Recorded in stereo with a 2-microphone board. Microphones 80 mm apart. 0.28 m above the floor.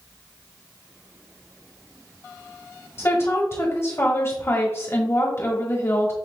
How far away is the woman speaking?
About 1.3 m.